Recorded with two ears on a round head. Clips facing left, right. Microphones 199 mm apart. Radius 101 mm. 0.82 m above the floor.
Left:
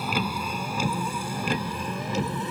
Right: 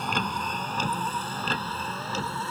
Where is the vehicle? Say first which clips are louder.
Left 2 dB; 5° left (ahead or behind); by 2.5 s 15° left (ahead or behind).